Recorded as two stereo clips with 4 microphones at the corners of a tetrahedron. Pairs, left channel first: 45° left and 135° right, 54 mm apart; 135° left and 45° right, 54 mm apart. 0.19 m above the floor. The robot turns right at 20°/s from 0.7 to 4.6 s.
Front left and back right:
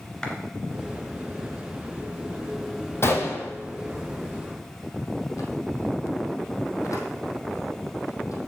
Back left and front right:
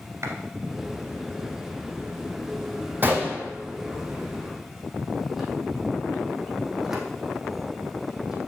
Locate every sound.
0.2 s a clap: 30° right, 1.9 m
3.0 s a gunshot: 5° left, 2.5 m; by 8.5 s 35° left, 2.5 m